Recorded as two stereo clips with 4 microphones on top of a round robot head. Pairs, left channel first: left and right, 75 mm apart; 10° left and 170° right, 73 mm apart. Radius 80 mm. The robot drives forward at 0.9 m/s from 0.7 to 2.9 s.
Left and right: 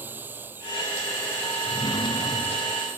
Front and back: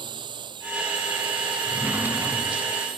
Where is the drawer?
125° left.